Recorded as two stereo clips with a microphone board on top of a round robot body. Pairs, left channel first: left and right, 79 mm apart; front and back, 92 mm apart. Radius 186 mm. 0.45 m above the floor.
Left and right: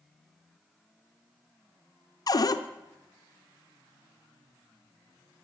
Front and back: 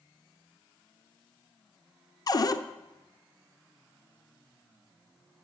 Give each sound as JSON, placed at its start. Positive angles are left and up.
{"t": 2.3, "sound": "a cupboard door", "azimuth_deg": 50, "distance_m": 0.6}